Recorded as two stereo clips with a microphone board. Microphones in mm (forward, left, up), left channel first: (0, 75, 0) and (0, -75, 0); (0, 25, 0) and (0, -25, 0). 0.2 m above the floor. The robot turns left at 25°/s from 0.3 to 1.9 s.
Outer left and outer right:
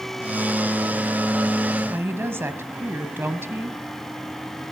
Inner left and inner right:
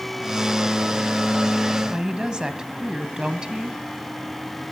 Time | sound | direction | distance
1.9 | a woman speaking | 15° right (ahead or behind) | 1.1 m